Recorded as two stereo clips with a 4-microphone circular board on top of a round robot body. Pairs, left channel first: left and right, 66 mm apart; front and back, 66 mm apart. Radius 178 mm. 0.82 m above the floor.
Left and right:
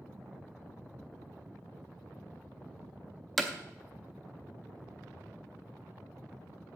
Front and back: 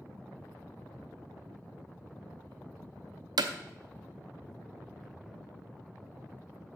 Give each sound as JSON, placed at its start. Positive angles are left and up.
{"t": 3.4, "sound": "hammering", "azimuth_deg": 180, "distance_m": 0.6}